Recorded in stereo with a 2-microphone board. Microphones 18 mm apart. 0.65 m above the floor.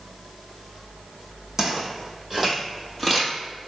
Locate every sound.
1.6 s footsteps: 20° right (ahead or behind), 1.8 m; by 3.3 s 10° left (ahead or behind), 0.9 m